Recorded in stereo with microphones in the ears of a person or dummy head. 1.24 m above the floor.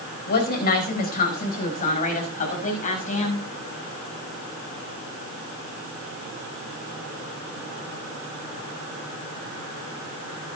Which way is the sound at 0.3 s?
50° left (ahead or behind).